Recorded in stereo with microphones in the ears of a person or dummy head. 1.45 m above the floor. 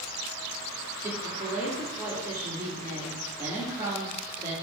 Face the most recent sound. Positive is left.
turn(degrees=-20)  # may be behind; listen again after turning